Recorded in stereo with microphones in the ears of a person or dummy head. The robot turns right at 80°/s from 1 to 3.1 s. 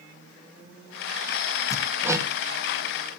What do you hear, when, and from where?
1.7 s hammering: 10° left (ahead or behind), 0.8 m; by 2.3 s 35° right (ahead or behind), 0.8 m